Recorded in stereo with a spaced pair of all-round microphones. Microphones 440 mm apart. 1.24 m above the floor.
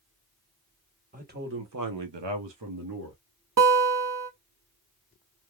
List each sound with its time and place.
1.1 s a man speaking: 20° right (ahead or behind), 1.3 m; by 3.2 s 45° right (ahead or behind), 1.3 m
3.6 s a guitar: 45° right (ahead or behind), 0.7 m